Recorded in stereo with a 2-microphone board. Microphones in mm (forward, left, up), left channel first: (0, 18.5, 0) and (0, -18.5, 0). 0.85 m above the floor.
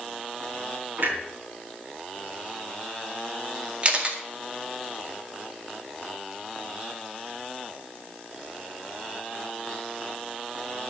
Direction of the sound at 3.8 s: 35° right (ahead or behind).